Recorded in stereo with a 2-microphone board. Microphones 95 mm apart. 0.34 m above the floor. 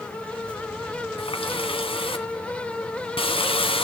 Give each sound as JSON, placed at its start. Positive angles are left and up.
{"t": 1.2, "sound": "a running tap", "side_deg": 70, "distance_m": 2.0}